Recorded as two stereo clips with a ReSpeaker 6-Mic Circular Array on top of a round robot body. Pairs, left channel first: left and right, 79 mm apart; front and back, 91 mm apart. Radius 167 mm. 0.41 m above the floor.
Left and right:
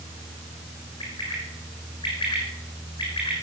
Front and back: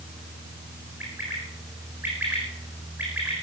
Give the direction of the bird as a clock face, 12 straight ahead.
8 o'clock.